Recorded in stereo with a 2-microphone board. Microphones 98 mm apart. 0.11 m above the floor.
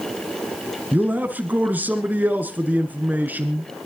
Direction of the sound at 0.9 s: 20° right (ahead or behind).